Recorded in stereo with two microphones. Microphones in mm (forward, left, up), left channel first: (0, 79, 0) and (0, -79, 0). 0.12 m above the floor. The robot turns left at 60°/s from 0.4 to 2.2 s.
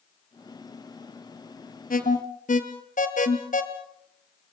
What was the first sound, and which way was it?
An alarm, 60° left (ahead or behind).